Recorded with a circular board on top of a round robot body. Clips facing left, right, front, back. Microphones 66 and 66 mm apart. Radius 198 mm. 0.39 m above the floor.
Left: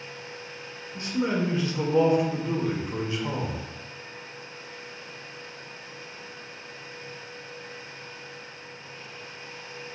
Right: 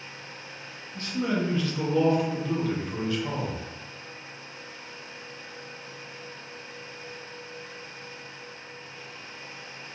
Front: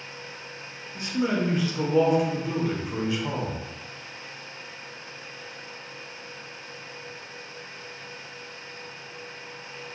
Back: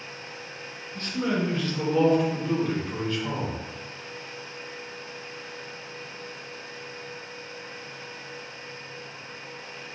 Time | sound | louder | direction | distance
0.9 | a man speaking | left 1 dB, front 1 dB | 50° left | 0.8 m